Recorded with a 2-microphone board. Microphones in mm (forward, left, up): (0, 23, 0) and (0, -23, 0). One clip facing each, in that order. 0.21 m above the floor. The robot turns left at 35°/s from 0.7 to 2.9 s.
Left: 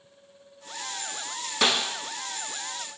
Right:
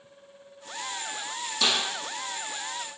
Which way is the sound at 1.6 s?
60° left (ahead or behind).